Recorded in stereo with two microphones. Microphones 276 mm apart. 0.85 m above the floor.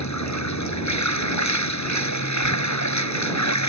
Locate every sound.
0.0 s running water: 80° left